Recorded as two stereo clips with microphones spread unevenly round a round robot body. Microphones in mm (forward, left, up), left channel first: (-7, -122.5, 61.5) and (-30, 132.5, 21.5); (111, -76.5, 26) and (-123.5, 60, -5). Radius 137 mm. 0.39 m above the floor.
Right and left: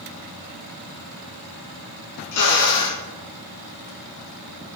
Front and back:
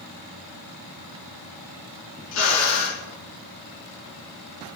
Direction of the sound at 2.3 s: 65° right.